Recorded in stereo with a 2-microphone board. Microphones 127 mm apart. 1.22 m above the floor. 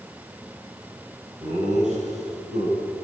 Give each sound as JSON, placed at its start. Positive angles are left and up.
{"t": 1.4, "sound": "laughter", "side_deg": -70, "distance_m": 10.0}